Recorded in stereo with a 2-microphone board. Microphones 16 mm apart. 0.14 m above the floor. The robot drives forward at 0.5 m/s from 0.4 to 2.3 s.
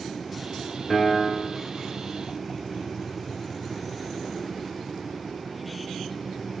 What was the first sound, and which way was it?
A piano, 5° left (ahead or behind).